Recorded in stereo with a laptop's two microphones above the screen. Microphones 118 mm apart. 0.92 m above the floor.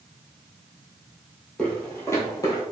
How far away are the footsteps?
About 1.4 m.